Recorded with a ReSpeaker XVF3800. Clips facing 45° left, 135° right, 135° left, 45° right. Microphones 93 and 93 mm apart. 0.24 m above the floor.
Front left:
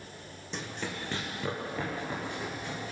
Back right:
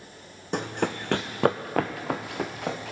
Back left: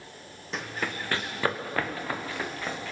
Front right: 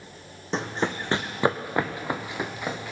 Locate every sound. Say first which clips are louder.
0.5 s running footsteps: back right 10 dB, front right 6 dB; 105° right, 0.8 m; by 2.9 s 120° right, 1.9 m